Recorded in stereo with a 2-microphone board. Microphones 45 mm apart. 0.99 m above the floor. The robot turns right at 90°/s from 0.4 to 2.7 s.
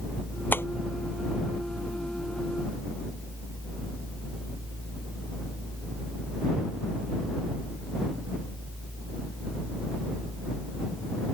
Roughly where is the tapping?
Left.